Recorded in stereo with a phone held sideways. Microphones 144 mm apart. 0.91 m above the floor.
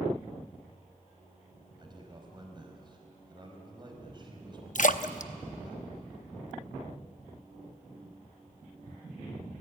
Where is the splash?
60° left (ahead or behind), 0.7 m.